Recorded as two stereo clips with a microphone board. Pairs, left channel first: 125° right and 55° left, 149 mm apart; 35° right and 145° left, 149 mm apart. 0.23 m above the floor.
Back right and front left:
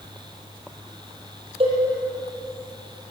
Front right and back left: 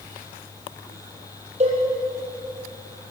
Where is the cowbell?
105° left, 6.5 m.